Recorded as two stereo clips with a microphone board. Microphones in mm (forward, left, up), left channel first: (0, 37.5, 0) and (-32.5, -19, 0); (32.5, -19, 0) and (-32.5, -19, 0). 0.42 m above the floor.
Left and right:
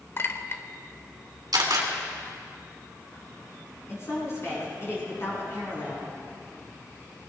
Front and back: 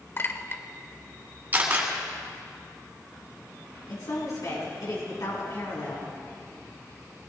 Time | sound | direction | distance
0.2 | a clink | 30° left | 0.9 m
1.5 | a camera shutter | 120° right | 2.5 m
3.9 | a woman speaking | 15° left | 3.5 m